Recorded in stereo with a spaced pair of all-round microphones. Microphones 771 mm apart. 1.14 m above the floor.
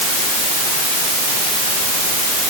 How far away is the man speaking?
I don't hear a man speaking.